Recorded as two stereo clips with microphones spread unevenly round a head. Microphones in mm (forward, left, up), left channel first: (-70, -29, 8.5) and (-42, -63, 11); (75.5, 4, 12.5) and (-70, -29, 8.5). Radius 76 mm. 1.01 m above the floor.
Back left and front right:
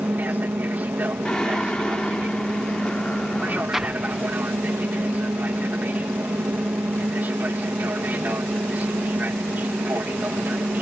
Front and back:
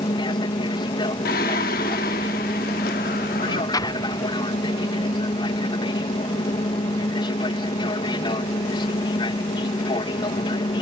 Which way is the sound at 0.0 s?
30° right.